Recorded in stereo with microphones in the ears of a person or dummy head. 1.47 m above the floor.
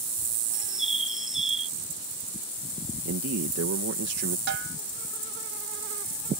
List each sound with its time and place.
0.5 s a bird: centre (ahead or behind)
3.0 s a man speaking: 75° right (ahead or behind)
4.5 s a snare drum: 70° right (ahead or behind)